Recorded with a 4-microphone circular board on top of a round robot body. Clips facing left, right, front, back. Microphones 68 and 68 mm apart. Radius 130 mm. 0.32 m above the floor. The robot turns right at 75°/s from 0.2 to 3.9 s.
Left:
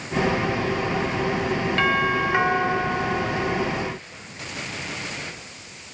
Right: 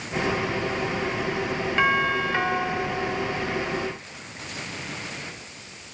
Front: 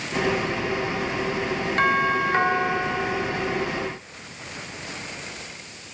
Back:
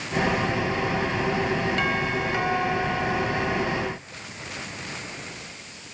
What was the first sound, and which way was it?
A doorbell, 15° right.